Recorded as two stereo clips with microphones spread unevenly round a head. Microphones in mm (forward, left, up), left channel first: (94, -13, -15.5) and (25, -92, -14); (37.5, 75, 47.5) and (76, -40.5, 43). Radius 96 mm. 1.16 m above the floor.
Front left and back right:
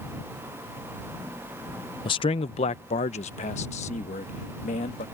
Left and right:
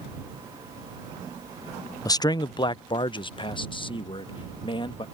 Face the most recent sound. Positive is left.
turn(degrees=60)